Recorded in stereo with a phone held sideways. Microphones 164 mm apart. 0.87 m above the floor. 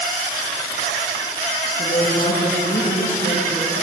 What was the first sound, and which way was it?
A woman speaking, 45° left (ahead or behind).